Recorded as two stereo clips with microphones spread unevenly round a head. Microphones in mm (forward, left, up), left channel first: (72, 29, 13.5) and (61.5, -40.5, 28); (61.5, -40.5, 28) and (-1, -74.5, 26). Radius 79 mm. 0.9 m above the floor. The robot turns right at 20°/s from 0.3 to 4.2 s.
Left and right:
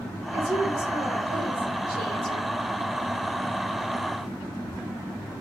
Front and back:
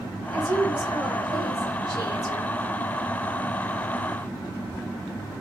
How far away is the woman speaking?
About 1.5 m.